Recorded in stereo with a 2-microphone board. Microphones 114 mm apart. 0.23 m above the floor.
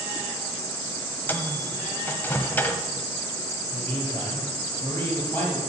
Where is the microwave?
15° left (ahead or behind), 1.0 m.